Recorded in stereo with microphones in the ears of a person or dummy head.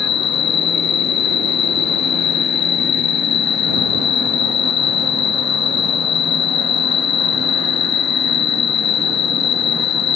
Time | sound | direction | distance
0.0 | an insect | 60° left (ahead or behind) | ?